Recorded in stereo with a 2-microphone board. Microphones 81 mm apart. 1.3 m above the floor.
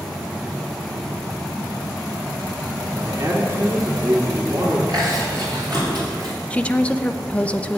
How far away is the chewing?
About 4.5 m.